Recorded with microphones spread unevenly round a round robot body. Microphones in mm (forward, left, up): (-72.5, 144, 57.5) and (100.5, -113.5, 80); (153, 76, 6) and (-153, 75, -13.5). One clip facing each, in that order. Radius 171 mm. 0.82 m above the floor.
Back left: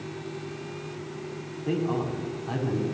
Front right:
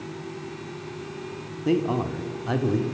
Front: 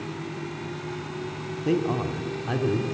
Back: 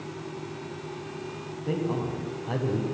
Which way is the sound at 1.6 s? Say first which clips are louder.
Front right 4 dB, front 4 dB; 25° right.